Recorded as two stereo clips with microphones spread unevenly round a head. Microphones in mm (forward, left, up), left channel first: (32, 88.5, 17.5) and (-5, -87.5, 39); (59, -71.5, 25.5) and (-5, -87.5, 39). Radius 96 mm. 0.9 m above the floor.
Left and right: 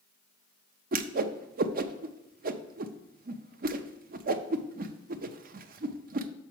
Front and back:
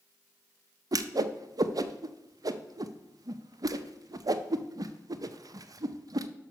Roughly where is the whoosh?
Behind right.